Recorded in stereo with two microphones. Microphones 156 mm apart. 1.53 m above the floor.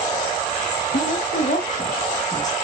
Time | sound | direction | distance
0.9 | a woman speaking | 80° left | 1.8 m